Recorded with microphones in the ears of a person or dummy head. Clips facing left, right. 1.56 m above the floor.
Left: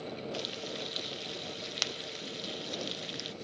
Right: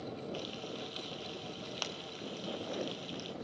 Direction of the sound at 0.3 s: 30° left (ahead or behind).